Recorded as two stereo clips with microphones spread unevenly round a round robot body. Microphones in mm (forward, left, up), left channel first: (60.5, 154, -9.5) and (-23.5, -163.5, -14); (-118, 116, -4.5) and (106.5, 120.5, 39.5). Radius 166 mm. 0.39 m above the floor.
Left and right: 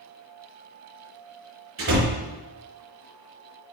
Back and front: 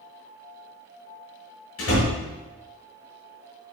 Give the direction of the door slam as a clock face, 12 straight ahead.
5 o'clock.